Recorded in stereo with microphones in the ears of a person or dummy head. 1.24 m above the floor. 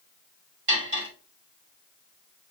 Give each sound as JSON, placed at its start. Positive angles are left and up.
{"t": 0.7, "sound": "cutlery clinking", "side_deg": -60, "distance_m": 2.5}